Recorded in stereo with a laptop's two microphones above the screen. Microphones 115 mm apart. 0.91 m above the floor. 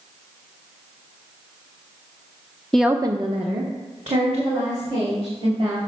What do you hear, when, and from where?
2.7 s a woman speaking: 5° left (ahead or behind), 0.6 m; by 5.8 s 75° right (ahead or behind), 4.5 m